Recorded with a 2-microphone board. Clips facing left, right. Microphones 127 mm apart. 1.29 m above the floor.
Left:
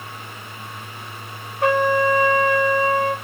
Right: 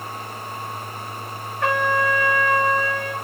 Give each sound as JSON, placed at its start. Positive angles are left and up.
{"t": 1.6, "sound": "a trumpet", "side_deg": 20, "distance_m": 3.5}